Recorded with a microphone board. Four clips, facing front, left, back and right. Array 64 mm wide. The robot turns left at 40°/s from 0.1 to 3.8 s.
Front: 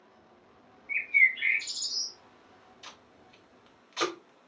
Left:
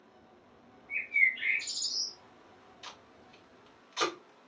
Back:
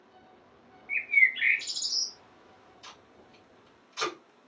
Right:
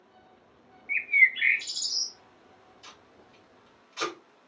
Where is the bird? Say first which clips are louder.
Right 6 dB, even; 100° right, 0.6 m; by 2.1 s 150° right, 0.6 m.